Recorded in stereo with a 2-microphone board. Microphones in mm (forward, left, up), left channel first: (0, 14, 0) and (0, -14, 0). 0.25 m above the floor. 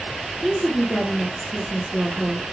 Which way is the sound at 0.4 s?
Centre (ahead or behind).